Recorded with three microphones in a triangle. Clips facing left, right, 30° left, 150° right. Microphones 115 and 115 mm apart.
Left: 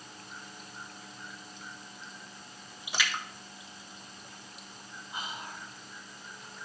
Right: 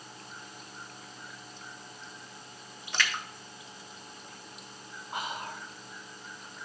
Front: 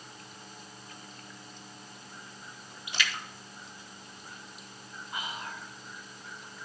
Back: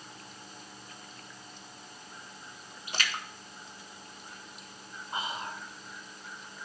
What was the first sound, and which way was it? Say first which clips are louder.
A splash: right 1 dB, even; 170° left.